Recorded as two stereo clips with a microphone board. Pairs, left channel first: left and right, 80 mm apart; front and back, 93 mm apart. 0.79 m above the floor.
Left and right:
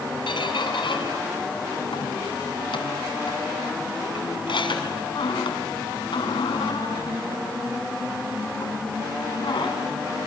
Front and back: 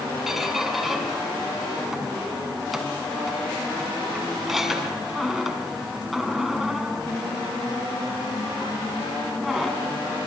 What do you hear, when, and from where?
0.3 s a squeak: 90° left, 3 m